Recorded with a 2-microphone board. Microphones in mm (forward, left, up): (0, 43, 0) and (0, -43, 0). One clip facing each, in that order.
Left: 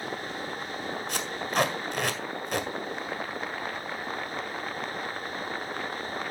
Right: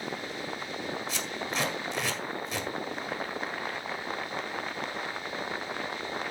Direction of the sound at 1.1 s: 55° left (ahead or behind).